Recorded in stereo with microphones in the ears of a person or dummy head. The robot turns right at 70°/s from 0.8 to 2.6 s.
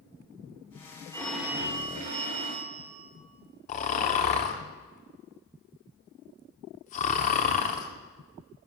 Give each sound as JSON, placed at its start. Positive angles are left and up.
{"t": 1.1, "sound": "a phone ringing", "azimuth_deg": 165, "distance_m": 2.5}
{"t": 3.7, "sound": "snoring", "side_deg": 35, "distance_m": 1.0}